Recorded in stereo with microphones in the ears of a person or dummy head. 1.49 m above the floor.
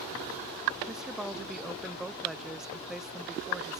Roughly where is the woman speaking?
Centre.